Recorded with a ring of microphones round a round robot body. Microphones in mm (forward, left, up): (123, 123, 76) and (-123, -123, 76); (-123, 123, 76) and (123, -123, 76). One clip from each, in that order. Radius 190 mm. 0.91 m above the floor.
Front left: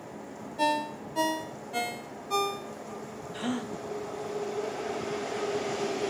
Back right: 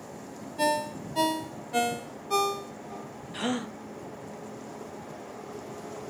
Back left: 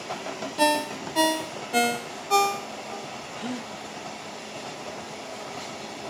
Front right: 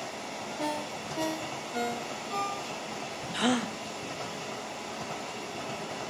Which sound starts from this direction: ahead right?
A gasp, at 3.3 s.